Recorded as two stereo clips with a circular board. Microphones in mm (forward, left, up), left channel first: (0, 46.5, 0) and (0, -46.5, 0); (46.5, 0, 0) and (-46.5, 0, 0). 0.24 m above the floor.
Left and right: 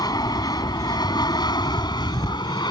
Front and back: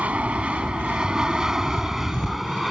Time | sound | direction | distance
0.0 | an aircraft | 110° left | ?